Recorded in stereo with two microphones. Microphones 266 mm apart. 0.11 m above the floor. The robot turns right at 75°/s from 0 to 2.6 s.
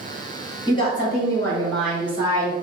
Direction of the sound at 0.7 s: 20° left (ahead or behind).